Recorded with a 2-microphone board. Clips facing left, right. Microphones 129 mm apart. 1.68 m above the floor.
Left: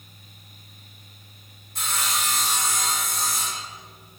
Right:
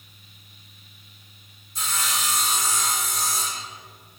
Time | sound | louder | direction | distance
1.8 | sawing | left 1 dB | 65° left (ahead or behind) | 1.8 m